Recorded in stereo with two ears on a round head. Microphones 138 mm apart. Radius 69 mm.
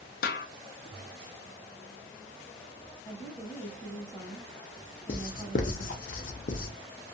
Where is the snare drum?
65° left (ahead or behind), 0.5 m.